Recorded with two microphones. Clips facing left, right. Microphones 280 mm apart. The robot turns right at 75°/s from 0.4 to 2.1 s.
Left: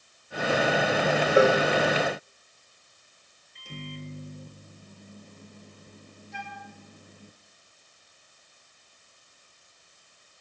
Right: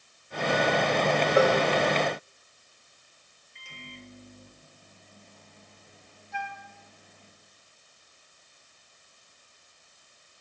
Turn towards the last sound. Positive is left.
turn(degrees=-60)  # may be behind; listen again after turning